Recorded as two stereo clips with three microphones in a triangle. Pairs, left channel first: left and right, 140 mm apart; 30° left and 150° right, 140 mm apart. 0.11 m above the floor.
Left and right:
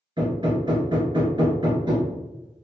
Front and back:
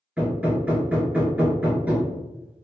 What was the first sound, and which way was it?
Hammering, 75° right.